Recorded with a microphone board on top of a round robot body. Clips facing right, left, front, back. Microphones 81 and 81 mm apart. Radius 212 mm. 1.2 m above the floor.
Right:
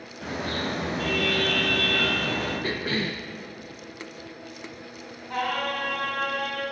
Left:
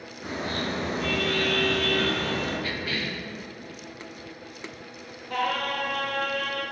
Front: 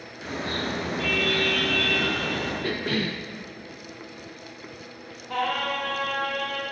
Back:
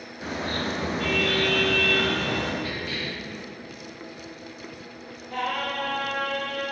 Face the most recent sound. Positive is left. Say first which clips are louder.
# even, front 2 dB
turn(degrees=-15)